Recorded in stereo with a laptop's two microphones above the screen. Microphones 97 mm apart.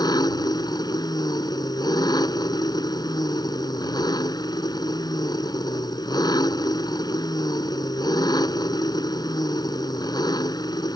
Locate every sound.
0.0 s an engine running: 45° left (ahead or behind)